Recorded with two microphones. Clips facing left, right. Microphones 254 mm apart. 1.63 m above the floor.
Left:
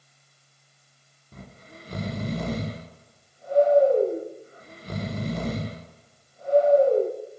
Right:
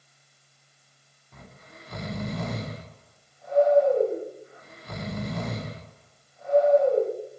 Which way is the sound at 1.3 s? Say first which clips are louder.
Left 4 dB; 35° left (ahead or behind).